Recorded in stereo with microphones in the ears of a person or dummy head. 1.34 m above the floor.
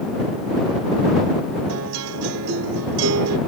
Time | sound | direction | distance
1.7 | a guitar | 85° right | ?